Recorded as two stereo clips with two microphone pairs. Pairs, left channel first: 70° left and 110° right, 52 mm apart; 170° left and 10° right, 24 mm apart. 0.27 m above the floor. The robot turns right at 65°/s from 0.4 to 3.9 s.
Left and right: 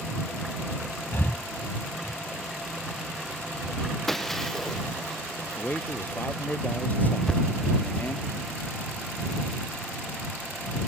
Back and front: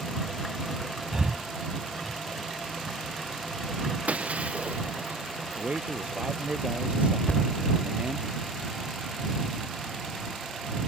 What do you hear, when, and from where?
1.1 s breathing: 40° left; by 2.2 s 110° left
4.1 s breaking glass: 15° right
5.6 s a man speaking: 15° left
7.3 s a thud: 145° left